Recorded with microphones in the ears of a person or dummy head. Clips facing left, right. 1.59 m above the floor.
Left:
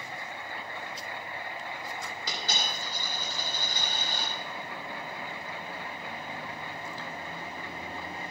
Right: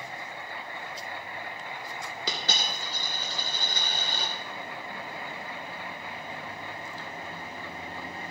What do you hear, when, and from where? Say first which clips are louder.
2.3 s a dropped coin: right 2 dB; 55° right (ahead or behind), 2 m